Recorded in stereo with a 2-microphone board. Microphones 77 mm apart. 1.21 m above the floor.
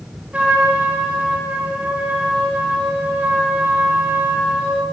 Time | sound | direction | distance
0.3 | a trumpet | 15° right (ahead or behind) | 4.5 m